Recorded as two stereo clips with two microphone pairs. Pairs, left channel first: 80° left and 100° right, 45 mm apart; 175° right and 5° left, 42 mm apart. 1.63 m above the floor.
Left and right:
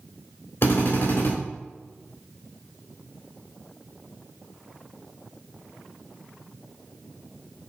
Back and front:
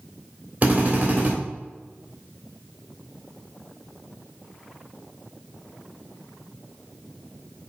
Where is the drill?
55° left, 3.5 m.